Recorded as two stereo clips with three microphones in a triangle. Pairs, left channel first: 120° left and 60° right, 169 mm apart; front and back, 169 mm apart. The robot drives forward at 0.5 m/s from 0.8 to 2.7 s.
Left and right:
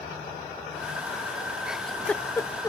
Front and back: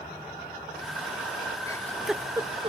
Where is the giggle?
20° left; by 2.7 s 170° left.